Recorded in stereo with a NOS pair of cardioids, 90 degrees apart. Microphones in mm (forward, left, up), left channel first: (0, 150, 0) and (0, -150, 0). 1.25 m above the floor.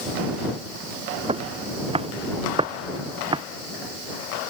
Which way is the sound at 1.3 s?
20° right.